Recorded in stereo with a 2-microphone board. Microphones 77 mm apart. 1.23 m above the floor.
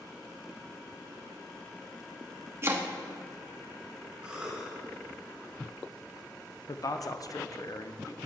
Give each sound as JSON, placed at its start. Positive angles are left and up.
{"t": 2.6, "sound": "chopping", "side_deg": -30, "distance_m": 1.0}
{"t": 4.2, "sound": "a cough", "side_deg": -10, "distance_m": 5.0}
{"t": 6.7, "sound": "a man speaking", "side_deg": 50, "distance_m": 0.8}